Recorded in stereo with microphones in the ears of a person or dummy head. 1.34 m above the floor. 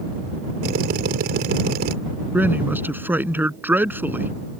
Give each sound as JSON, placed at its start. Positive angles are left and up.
{"t": 0.6, "sound": "a drill", "side_deg": -55}
{"t": 2.3, "sound": "a man speaking", "side_deg": -15}